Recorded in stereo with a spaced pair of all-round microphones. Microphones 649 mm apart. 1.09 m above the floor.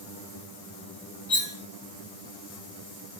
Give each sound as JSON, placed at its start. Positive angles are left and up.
{"t": 1.3, "sound": "cutlery clinking", "side_deg": 25, "distance_m": 1.7}